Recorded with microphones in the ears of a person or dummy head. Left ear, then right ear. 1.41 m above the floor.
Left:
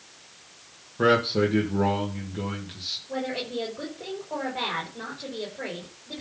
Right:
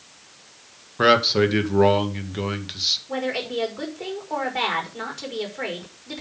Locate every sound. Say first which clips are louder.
1.0 s a man speaking: right 4 dB; 50° right (ahead or behind), 1.9 m
3.1 s a woman speaking: right 4 dB; 65° right (ahead or behind), 4.5 m